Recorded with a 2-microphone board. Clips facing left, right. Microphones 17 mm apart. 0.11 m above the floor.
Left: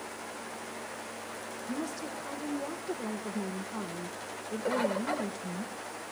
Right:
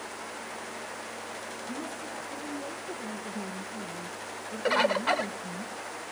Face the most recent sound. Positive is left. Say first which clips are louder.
# right 5 dB
turn(degrees=-50)  # may be behind; listen again after turning